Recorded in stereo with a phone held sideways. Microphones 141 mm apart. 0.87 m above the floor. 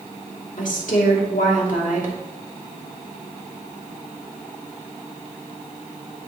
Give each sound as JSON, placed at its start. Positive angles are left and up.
{"t": 0.6, "sound": "a woman speaking", "side_deg": 65, "distance_m": 1.8}